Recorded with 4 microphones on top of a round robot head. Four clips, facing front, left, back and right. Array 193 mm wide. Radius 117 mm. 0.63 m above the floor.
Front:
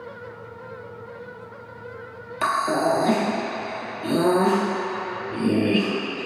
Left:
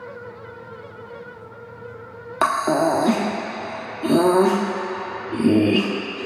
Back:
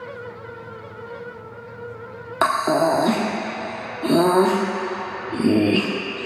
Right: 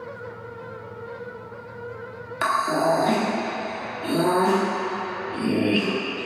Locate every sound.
2.4 s breathing: 135° left, 0.8 m